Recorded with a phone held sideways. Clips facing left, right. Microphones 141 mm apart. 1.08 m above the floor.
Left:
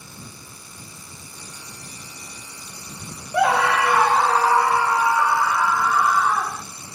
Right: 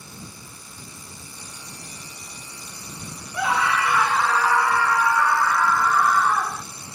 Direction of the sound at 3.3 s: 70° left (ahead or behind).